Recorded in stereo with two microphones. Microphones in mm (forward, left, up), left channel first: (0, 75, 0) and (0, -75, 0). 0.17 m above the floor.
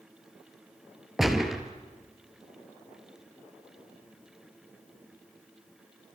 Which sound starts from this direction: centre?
A gunshot, at 1.2 s.